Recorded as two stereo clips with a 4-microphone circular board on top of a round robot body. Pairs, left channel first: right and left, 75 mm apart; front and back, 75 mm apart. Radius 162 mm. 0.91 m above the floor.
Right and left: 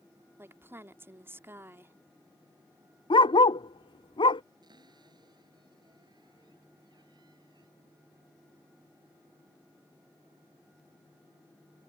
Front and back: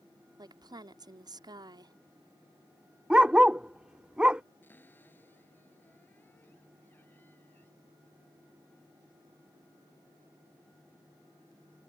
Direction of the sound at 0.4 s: 150° left.